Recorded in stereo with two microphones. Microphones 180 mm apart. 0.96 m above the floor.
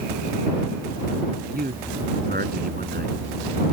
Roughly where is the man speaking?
Right.